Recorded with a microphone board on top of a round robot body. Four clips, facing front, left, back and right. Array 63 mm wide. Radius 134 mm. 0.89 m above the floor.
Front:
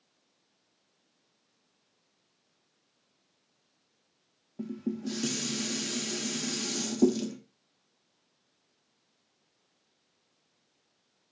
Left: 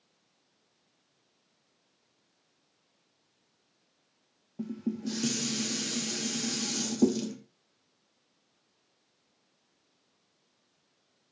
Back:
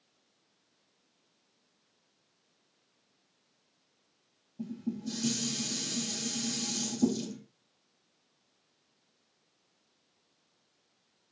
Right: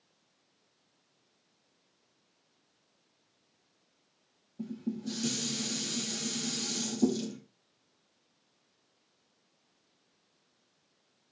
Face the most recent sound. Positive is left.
turn(degrees=35)